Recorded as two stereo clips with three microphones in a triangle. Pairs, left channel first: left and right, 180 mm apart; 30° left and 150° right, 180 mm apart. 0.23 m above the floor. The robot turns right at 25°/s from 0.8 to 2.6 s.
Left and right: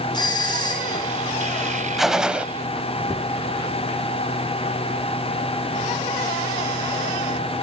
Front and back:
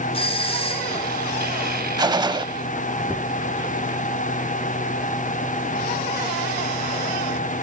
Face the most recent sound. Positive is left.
turn(degrees=-160)